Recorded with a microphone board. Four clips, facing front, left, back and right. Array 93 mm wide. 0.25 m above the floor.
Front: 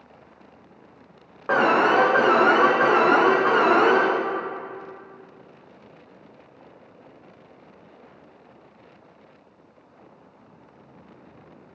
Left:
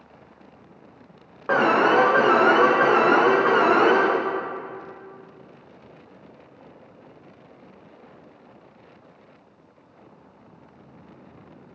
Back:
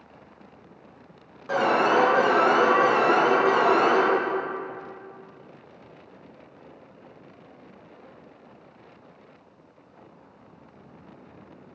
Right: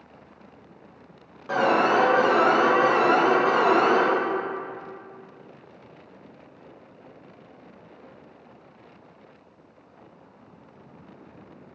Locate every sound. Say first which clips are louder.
1.5 s an alarm: left 3 dB, front 3 dB; 50° left, 2 m